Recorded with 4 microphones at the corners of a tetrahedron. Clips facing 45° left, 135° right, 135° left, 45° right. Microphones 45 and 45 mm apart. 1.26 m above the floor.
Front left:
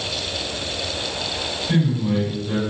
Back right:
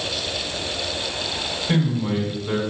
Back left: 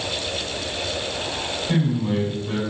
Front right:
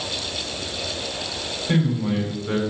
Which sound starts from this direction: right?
A man speaking, at 1.7 s.